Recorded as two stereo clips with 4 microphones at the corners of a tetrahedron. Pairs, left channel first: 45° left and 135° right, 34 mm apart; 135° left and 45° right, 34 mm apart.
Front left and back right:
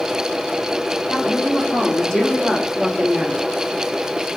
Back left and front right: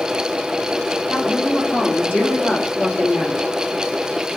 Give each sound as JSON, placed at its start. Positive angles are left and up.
{"t": 1.1, "sound": "a woman speaking", "azimuth_deg": 110, "distance_m": 3.5}